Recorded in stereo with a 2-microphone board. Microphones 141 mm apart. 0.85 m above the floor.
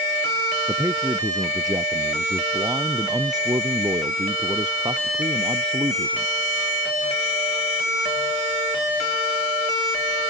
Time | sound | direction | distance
0.7 | a man speaking | 20° right (ahead or behind) | ?